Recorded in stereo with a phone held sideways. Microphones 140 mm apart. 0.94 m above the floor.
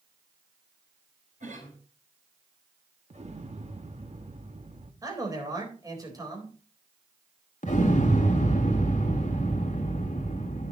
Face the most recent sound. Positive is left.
turn(degrees=60)  # may be behind; listen again after turning